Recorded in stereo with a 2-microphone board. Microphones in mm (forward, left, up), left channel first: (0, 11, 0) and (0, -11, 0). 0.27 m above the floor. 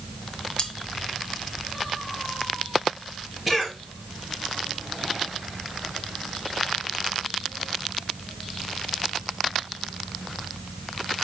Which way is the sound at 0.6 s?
40° left (ahead or behind).